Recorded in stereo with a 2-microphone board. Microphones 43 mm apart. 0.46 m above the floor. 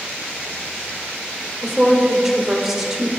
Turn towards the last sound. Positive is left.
turn(degrees=-10)  # may be behind; listen again after turning